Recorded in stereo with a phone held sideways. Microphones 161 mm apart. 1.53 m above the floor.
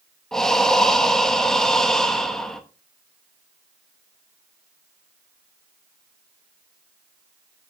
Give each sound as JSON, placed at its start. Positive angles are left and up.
{"t": 0.3, "sound": "breathing", "side_deg": 5, "distance_m": 0.9}